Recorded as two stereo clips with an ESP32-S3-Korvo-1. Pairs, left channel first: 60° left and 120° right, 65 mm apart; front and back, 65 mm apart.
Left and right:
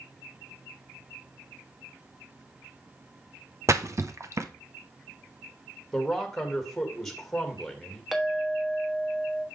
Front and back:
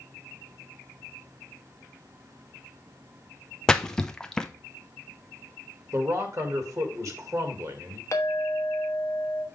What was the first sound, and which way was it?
A splash, 80° right.